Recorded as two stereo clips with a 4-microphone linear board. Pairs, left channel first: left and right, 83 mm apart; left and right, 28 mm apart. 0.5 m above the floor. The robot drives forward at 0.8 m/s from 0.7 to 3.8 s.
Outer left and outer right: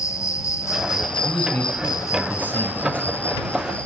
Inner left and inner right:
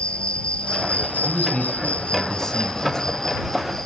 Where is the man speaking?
20° left (ahead or behind), 3.5 m; by 3.2 s 15° left (ahead or behind), 5 m.